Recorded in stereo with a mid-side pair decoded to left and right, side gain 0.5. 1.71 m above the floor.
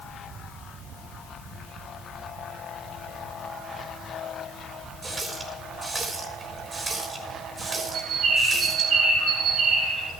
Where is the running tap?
25° right, 3.5 m.